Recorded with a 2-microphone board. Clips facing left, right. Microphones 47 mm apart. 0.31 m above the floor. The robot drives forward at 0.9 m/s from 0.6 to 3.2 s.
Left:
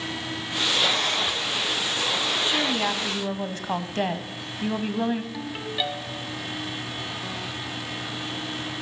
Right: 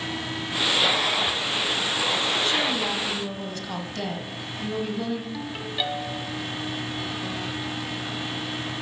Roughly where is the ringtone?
Centre.